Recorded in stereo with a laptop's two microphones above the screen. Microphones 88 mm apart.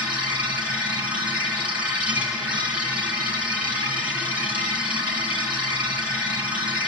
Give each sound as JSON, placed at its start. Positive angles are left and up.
{"t": 0.0, "sound": "a machine running", "side_deg": -15, "distance_m": 2.0}